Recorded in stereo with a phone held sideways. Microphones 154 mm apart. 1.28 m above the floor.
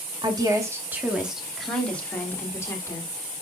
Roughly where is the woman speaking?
Right.